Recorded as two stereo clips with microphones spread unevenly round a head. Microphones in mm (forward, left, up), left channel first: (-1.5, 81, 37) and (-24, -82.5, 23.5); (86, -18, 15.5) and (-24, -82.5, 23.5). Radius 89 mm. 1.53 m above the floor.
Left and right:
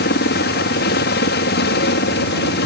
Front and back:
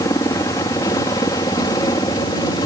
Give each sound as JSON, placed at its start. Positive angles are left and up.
{"t": 0.0, "sound": "a helicopter", "azimuth_deg": 100}